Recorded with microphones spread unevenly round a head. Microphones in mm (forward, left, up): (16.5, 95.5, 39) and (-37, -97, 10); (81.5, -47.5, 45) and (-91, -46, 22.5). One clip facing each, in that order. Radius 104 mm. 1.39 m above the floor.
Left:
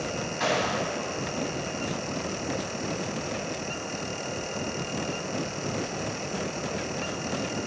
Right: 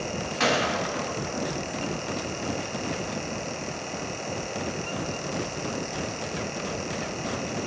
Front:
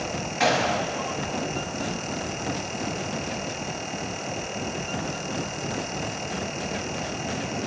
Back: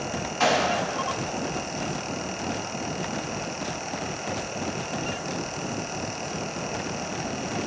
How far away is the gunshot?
About 2.5 m.